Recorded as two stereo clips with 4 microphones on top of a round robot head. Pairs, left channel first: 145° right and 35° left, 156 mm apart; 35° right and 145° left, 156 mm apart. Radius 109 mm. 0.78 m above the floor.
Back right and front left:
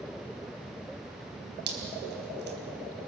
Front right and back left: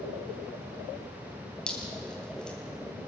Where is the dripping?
50° left, 4 m.